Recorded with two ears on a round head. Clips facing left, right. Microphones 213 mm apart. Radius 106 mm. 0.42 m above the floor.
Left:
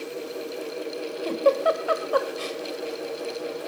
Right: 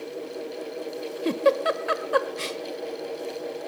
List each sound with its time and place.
1.2 s a giggle: 30° right (ahead or behind), 0.9 m